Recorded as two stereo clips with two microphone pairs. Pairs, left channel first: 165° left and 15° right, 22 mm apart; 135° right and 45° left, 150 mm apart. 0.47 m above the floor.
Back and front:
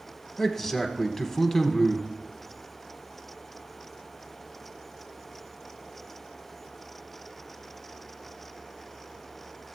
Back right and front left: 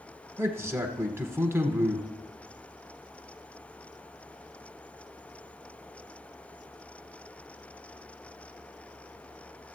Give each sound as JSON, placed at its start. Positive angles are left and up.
{"t": 0.4, "sound": "a man speaking", "azimuth_deg": 110, "distance_m": 0.8}